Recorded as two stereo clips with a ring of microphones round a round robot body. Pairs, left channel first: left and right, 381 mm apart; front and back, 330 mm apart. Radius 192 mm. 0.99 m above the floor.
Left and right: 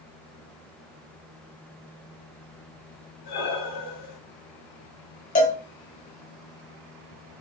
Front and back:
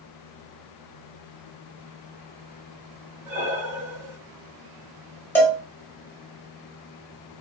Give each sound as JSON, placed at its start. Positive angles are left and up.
{"t": 3.2, "sound": "breathing", "azimuth_deg": 130, "distance_m": 1.2}
{"t": 5.3, "sound": "a cowbell", "azimuth_deg": 70, "distance_m": 0.8}